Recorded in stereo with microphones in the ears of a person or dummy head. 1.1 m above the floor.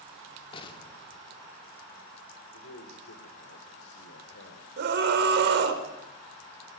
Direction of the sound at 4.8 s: 65° right (ahead or behind).